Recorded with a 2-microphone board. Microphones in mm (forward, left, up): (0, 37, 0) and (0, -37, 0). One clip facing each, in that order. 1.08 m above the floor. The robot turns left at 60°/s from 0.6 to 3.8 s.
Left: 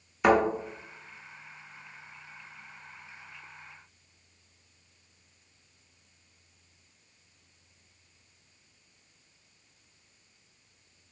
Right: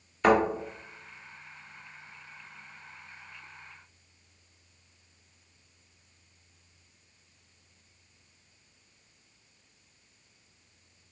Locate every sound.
0.2 s a thud: 15° left (ahead or behind), 1.5 m